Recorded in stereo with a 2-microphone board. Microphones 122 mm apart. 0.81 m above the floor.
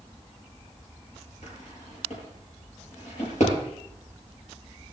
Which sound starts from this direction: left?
A drawer, at 1.4 s.